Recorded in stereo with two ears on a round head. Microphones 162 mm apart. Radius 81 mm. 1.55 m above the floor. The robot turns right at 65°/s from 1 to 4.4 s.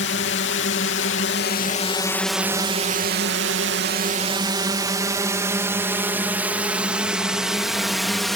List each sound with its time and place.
0.0 s a drone: 70° left (ahead or behind); by 8.4 s centre (ahead or behind)